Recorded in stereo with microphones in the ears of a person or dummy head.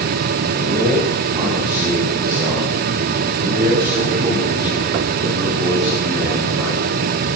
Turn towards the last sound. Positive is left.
turn(degrees=-10)  # may be behind; listen again after turning